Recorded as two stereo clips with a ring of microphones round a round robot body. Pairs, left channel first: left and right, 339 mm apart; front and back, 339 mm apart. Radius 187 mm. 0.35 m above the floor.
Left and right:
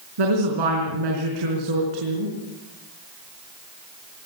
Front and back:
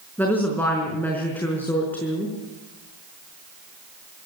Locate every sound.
0.2 s a woman speaking: 85° right, 4.5 m